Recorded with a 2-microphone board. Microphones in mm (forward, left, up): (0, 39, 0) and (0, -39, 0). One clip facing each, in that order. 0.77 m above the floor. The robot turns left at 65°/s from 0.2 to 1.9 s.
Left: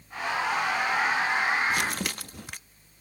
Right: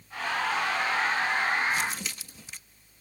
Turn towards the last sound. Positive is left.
turn(degrees=60)  # may be behind; listen again after turning